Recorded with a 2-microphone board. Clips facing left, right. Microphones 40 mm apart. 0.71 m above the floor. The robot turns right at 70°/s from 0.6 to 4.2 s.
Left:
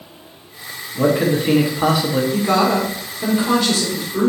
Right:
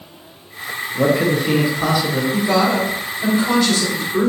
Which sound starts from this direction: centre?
A man speaking, at 0.9 s.